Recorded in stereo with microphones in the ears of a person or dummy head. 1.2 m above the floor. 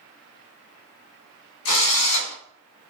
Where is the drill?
75° left (ahead or behind), 1.3 m.